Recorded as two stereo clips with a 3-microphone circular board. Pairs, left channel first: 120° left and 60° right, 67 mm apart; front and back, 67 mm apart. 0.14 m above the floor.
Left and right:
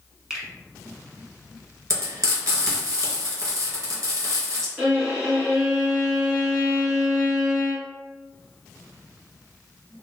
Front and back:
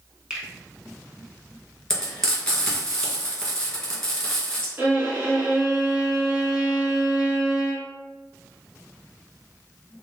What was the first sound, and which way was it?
A finger snap, 130° right.